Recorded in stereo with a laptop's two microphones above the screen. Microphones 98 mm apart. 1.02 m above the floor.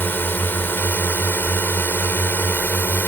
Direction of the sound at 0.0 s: 20° left (ahead or behind).